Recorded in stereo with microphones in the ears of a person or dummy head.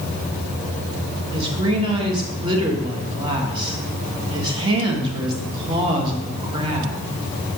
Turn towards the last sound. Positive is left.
turn(degrees=-30)  # may be behind; listen again after turning